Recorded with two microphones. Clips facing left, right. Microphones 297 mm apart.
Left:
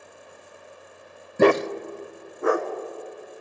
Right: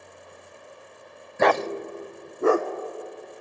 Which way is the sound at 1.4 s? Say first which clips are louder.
Left 5 dB; 45° left (ahead or behind).